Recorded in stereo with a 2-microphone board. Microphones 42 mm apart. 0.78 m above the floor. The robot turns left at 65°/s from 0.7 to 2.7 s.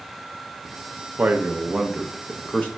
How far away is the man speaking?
About 0.5 m.